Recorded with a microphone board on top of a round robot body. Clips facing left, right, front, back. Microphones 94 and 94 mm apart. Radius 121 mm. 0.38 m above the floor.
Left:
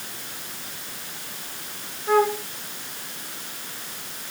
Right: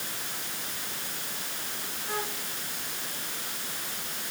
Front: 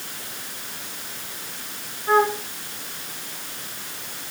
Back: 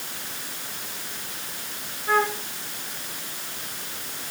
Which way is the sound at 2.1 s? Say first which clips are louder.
Left 16 dB, front 4 dB; 70° left.